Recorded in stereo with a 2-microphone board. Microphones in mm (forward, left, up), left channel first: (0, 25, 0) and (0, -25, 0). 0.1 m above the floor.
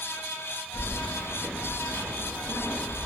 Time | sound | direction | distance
0.7 | keys jangling | 30° left (ahead or behind) | 1.1 m